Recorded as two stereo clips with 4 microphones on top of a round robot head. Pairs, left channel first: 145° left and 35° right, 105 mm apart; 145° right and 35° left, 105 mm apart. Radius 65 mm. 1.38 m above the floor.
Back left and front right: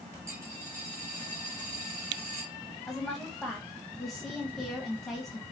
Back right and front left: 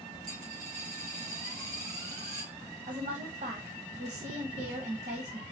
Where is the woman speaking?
55° left, 1.1 m.